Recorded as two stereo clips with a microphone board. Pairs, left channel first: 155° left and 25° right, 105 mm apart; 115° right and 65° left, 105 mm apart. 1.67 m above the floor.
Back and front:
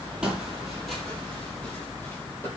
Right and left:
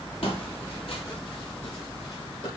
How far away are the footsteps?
About 3.5 m.